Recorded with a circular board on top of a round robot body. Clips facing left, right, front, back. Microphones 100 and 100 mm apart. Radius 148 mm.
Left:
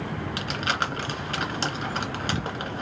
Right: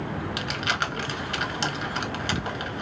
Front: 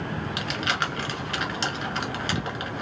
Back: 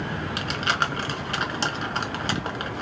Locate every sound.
0.4 s crumpling: 135° left, 1.9 m